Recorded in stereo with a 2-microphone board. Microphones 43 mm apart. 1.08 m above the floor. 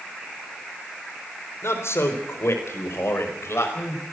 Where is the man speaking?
75° left (ahead or behind), 4 m.